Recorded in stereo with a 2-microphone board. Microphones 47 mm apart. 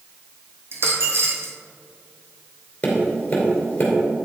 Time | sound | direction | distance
0.7 | a dropped coin | 60° right (ahead or behind) | 1.8 m
2.8 | tapping | 25° left (ahead or behind) | 2.5 m